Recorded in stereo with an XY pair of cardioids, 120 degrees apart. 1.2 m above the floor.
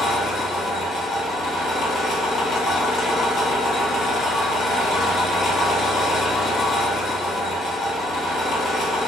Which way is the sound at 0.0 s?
65° left.